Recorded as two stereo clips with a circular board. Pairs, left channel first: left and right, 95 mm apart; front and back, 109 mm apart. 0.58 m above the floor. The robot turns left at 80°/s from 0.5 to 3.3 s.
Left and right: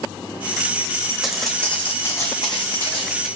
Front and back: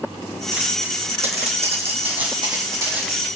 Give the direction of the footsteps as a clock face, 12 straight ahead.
6 o'clock.